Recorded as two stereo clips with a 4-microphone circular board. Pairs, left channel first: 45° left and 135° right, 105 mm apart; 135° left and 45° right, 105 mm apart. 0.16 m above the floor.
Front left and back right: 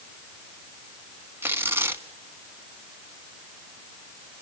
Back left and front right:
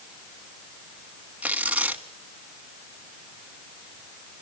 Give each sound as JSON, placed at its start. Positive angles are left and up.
{"t": 1.4, "sound": "tearing paper", "azimuth_deg": -105, "distance_m": 1.3}